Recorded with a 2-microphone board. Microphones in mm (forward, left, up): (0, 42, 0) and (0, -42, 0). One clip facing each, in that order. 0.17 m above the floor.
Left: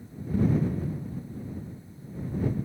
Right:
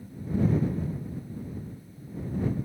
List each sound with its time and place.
Only background noise.